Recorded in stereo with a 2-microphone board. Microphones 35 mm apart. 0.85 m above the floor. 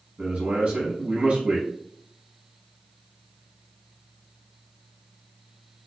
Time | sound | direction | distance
0.2 | a man speaking | 35° right (ahead or behind) | 1.0 m